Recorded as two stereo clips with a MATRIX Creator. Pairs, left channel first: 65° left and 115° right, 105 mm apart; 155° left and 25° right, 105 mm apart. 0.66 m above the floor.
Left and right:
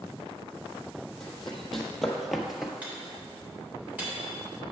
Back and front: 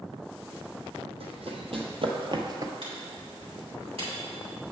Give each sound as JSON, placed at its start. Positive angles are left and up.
{"t": 1.2, "sound": "running footsteps", "azimuth_deg": -20, "distance_m": 1.6}
{"t": 2.8, "sound": "a microwave", "azimuth_deg": -35, "distance_m": 2.5}